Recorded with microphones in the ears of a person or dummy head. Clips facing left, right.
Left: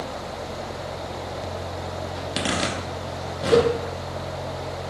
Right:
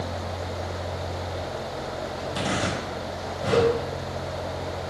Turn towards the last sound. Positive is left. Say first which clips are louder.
# left 3 dB
turn(degrees=65)  # may be behind; listen again after turning